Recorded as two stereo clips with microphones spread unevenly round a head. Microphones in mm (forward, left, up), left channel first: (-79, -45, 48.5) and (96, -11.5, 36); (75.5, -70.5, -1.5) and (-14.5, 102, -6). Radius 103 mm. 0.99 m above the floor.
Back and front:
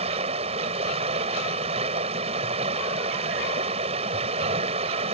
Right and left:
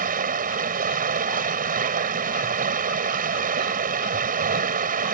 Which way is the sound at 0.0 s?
70° left.